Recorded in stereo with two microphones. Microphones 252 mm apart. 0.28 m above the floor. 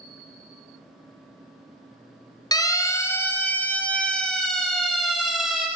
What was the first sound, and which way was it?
A siren, 15° left (ahead or behind).